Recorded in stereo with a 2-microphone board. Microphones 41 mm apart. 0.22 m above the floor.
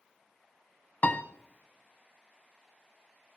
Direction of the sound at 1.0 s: 45° left (ahead or behind).